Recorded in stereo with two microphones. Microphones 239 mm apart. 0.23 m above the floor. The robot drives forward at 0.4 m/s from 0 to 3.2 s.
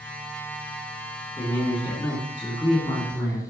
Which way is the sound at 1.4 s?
20° left (ahead or behind).